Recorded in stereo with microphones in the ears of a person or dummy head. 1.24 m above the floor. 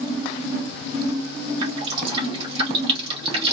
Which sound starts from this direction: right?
Dripping, at 1.6 s.